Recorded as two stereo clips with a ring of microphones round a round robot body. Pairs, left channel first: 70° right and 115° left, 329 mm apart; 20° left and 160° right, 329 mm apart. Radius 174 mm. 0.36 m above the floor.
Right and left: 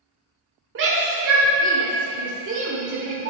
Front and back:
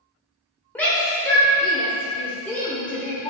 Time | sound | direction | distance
0.8 | a shout | 105° left | 1.2 m